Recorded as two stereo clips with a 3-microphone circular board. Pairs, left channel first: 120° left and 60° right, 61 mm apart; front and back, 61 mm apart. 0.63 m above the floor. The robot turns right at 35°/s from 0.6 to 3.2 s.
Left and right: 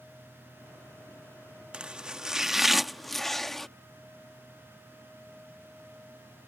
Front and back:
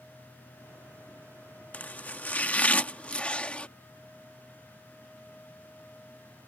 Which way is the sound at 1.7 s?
10° right.